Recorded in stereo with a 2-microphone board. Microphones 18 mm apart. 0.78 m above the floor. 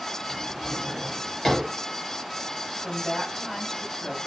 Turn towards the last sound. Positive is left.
turn(degrees=20)  # may be behind; listen again after turning